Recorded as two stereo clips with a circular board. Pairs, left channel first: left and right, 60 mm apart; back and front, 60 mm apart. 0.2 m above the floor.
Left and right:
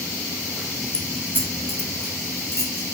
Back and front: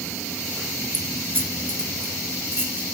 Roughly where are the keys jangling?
Ahead left.